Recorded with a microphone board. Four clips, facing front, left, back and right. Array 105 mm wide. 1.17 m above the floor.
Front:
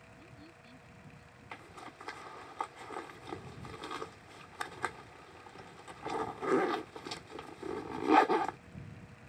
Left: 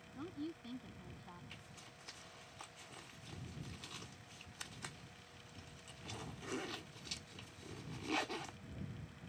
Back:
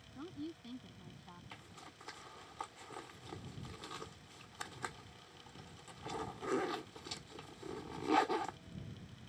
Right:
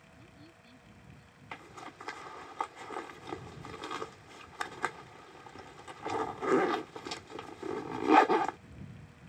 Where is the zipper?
65° right.